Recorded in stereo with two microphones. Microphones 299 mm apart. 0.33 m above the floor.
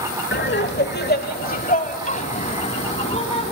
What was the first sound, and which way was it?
Laughter, 35° left (ahead or behind).